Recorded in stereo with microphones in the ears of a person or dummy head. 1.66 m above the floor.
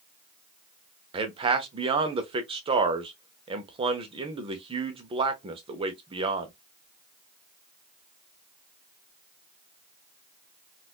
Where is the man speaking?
25° right (ahead or behind), 0.8 m.